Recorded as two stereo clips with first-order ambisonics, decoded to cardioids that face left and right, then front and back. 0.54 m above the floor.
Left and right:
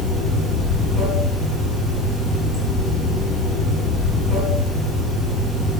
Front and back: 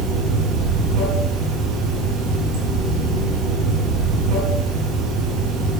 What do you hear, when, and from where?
0.0 s running water: 160° left, 3.5 m